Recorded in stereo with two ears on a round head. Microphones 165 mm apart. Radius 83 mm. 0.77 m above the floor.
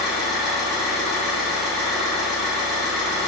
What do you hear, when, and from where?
0.0 s an engine running: centre (ahead or behind), 1.0 m